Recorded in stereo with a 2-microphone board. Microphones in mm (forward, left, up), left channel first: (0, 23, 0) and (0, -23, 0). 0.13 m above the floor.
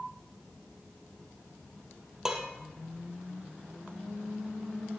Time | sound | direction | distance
2.2 | dishes clattering | 10° right (ahead or behind) | 2.5 m